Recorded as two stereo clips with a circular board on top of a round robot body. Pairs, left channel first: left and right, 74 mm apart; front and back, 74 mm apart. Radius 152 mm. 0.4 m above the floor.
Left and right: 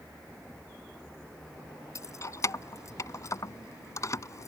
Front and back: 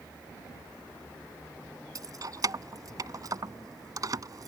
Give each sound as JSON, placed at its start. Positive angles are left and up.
{"t": 1.9, "sound": "keys jangling", "azimuth_deg": 140}